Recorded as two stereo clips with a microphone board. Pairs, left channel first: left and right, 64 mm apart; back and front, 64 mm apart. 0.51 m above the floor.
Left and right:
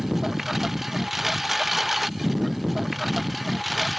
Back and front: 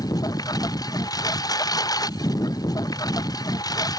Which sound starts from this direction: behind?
A lawn mower, at 0.0 s.